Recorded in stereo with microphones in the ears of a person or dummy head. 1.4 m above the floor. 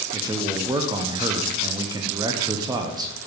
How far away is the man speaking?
About 0.8 m.